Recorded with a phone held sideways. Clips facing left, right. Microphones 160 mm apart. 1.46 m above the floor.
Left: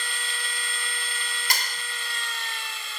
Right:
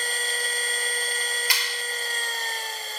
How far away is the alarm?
No alarm in this recording.